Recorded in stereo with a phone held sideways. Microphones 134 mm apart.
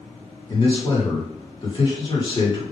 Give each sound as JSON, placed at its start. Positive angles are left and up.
{"t": 0.5, "sound": "a man speaking", "side_deg": 40, "distance_m": 1.4}